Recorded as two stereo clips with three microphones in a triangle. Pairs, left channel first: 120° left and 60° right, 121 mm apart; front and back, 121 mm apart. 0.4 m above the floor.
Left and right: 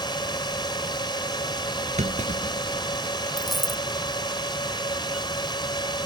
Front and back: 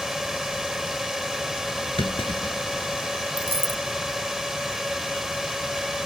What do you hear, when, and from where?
0.0 s a drone: 95° left
2.0 s a clunk: 40° right
3.4 s a dropped coin: 150° right